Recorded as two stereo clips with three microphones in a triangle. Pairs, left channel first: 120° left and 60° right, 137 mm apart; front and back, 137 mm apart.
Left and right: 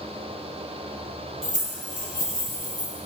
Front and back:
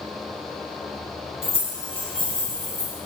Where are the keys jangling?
35° right, 1.7 m; by 3.0 s 55° right, 3 m.